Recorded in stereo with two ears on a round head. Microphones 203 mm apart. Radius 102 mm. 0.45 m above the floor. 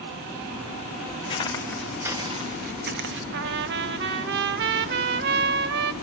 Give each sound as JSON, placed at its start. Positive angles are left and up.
{"t": 1.3, "sound": "footsteps", "side_deg": 25, "distance_m": 1.4}
{"t": 3.3, "sound": "a trumpet", "side_deg": -50, "distance_m": 0.7}